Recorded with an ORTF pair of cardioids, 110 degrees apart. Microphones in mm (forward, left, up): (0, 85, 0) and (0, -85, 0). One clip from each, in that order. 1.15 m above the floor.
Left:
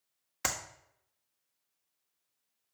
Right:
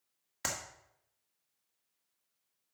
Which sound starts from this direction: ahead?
A clap, at 0.4 s.